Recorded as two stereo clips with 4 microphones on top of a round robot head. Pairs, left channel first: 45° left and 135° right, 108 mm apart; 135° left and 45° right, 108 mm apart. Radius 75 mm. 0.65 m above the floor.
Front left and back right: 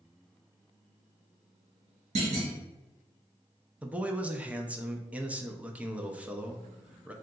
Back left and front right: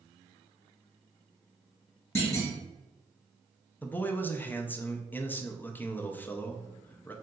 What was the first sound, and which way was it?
A clunk, 160° right.